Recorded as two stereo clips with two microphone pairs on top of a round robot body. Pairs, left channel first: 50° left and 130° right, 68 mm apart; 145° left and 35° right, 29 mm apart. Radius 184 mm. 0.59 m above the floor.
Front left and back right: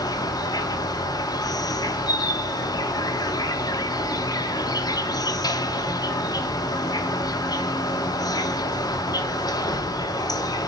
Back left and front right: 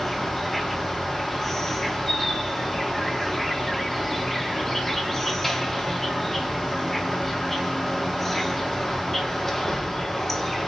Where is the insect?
60° left, 1.2 m.